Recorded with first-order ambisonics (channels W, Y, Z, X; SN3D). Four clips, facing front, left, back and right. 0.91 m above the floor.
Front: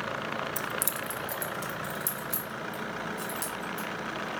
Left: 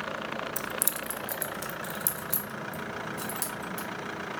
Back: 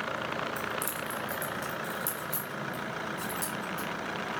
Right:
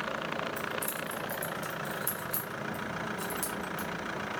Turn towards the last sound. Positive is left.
turn(degrees=85)